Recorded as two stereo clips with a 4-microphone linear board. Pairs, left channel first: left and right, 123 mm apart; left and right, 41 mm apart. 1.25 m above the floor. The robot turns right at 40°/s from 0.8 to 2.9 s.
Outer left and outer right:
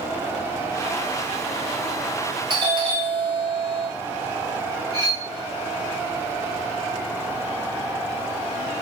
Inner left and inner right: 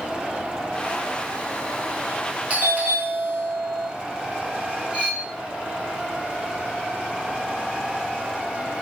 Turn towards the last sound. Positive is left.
turn(degrees=-25)  # may be behind; listen again after turning